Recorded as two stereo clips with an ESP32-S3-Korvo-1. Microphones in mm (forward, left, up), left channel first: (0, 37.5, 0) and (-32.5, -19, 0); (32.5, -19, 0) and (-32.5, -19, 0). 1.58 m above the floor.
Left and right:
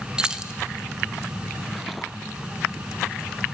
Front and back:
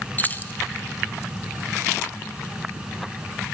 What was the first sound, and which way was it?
Keys jangling, 50° right.